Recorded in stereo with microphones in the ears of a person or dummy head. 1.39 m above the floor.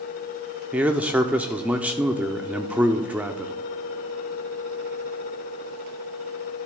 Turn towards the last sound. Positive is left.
turn(degrees=-10)  # may be behind; listen again after turning